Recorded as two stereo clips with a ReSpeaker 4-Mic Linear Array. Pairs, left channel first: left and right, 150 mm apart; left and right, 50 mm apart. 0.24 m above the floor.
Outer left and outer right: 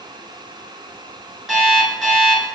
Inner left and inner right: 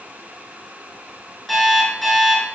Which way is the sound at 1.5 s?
Centre (ahead or behind).